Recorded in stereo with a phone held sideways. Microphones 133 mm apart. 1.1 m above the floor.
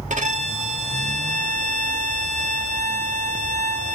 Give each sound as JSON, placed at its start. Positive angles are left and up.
{"t": 0.1, "sound": "a violin", "side_deg": -65, "distance_m": 1.7}